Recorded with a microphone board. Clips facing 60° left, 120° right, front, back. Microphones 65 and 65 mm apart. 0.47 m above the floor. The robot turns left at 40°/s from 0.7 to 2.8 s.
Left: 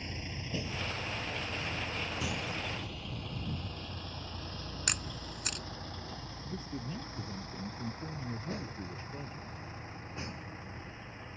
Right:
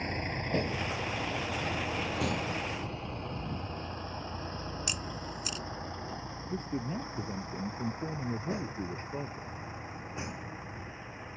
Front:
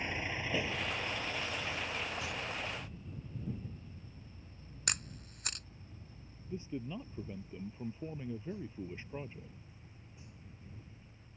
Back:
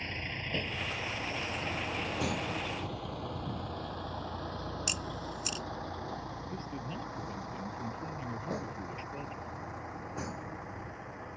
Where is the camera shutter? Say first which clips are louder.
Right 2 dB, back 6 dB; 30° left.